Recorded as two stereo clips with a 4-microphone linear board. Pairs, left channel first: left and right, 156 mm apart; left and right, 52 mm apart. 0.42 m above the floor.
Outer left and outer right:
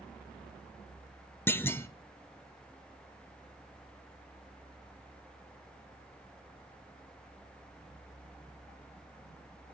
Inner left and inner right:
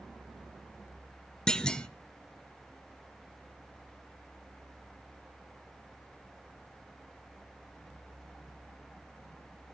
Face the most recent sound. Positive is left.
turn(degrees=15)  # may be behind; listen again after turning